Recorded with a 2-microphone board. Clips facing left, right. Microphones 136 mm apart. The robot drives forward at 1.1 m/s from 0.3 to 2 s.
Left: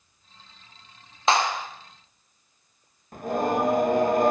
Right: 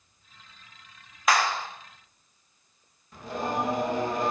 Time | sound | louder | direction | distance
1.3 | a clap | left 2 dB | 25° left (ahead or behind) | 0.5 m
3.1 | singing | left 6 dB | 50° left (ahead or behind) | 0.9 m